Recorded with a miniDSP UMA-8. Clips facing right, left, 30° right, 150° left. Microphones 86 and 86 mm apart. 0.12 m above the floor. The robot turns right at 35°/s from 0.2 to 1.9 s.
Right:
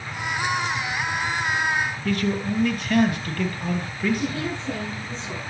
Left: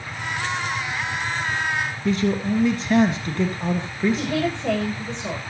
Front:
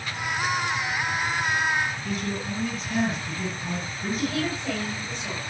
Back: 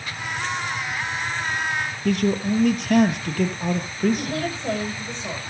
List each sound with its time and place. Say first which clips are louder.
2.0 s a man speaking: left 5 dB, back 8 dB; 155° left, 2.5 m
4.2 s a woman speaking: left 4 dB, even; 90° left, 10 m